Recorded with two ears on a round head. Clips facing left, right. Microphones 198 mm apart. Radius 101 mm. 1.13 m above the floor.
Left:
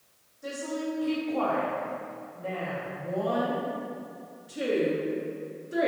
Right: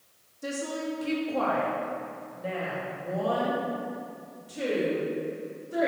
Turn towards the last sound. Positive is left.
turn(degrees=25)  # may be behind; listen again after turning